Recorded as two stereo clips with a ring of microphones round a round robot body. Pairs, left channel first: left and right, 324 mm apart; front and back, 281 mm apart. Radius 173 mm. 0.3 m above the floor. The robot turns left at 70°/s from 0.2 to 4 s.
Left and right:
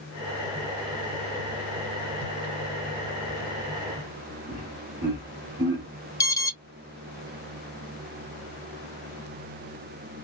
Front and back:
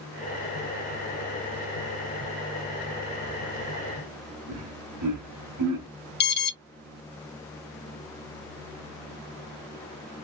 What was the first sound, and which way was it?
Laughter, 170° right.